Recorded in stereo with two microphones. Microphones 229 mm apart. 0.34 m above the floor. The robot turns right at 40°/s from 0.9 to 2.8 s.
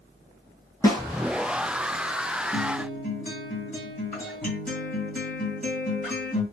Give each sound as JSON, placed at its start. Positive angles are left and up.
{"t": 0.8, "sound": "a snare drum", "side_deg": 15, "distance_m": 1.6}
{"t": 2.5, "sound": "a guitar", "side_deg": 25, "distance_m": 2.5}